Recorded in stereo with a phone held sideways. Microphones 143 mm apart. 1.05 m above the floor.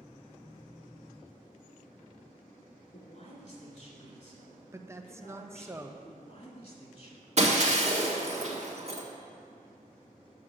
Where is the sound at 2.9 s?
55° left (ahead or behind), 2.5 m.